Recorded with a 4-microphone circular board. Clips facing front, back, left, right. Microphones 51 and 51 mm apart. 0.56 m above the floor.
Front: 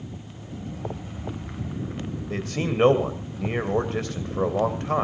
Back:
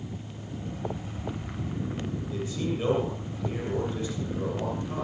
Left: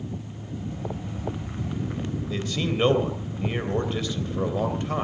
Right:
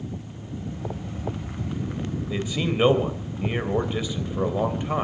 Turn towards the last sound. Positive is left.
turn(degrees=-15)